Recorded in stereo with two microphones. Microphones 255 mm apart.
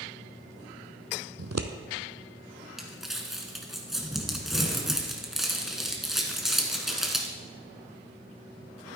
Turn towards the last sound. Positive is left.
turn(degrees=0)  # may be behind; listen again after turning